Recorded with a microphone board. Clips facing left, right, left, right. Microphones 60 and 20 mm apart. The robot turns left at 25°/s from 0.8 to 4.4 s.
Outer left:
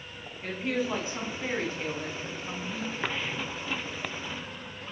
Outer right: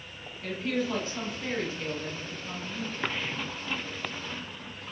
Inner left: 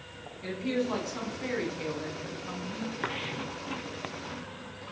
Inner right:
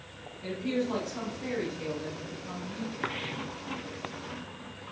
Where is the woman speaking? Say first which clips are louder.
Even, even; 150° left, 1.5 m; by 3.1 s 90° left, 1.5 m.